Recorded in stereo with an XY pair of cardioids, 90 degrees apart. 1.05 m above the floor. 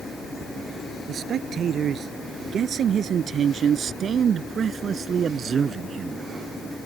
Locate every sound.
1.1 s a man speaking: 70° right; by 6.3 s 55° right